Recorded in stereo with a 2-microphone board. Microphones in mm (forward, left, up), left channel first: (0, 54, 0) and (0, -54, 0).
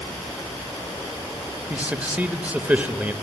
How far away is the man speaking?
About 1.0 m.